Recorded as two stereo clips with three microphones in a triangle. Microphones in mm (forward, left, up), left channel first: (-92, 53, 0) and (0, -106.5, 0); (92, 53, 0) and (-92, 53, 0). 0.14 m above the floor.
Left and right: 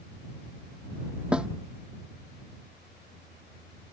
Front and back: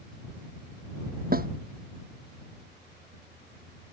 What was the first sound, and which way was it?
A snare drum, 145° right.